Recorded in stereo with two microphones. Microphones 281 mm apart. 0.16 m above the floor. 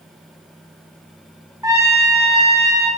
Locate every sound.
1.6 s a trumpet: 10° right (ahead or behind), 2.0 m